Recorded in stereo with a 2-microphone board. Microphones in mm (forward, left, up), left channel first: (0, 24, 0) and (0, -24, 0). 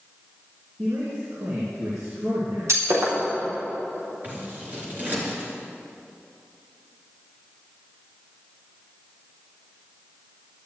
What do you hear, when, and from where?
0.8 s a man speaking: 65° right (ahead or behind), 3 m
2.7 s breaking glass: 70° right (ahead or behind), 5 m
4.2 s scissors: 35° right (ahead or behind), 3.5 m